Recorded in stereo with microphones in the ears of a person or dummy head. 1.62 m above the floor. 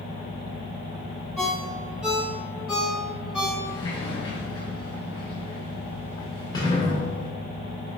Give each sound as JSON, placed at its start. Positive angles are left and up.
{"t": 1.4, "sound": "a ringtone", "side_deg": -5, "distance_m": 2.5}
{"t": 3.6, "sound": "a sliding door", "side_deg": 25, "distance_m": 2.0}